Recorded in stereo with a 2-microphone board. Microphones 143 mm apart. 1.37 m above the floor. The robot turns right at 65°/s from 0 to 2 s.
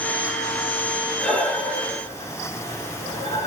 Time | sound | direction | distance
1.2 | breathing | 5° right (ahead or behind) | 1.2 m